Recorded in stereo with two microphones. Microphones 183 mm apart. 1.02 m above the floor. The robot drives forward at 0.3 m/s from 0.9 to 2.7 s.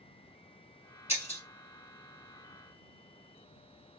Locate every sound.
1.1 s breaking glass: 40° left (ahead or behind), 1.7 m